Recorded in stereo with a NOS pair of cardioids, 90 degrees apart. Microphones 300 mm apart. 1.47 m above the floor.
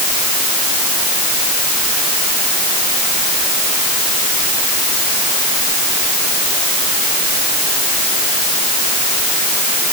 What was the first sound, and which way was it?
Only background noise.